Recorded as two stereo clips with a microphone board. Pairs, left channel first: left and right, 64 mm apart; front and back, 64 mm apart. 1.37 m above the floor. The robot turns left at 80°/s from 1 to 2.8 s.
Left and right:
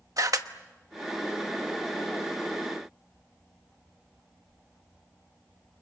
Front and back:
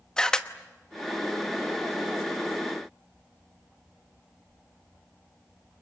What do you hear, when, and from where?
0.2 s a camera shutter: 75° right, 1.1 m